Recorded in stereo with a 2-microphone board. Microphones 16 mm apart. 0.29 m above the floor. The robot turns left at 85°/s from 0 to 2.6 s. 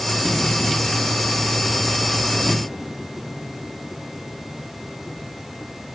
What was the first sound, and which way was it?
Only background noise.